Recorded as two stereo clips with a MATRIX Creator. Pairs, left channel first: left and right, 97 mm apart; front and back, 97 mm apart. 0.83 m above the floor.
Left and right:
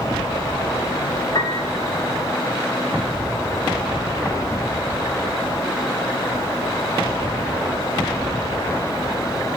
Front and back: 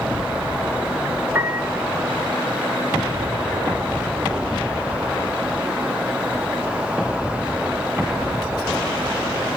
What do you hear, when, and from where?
1.4 s a piano: 115° left, 0.9 m